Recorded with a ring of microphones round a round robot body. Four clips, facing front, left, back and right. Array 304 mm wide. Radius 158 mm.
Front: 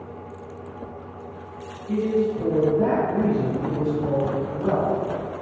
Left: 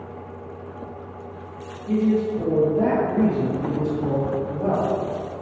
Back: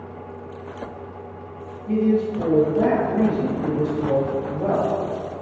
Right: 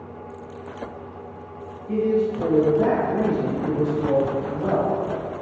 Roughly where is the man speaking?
Behind left.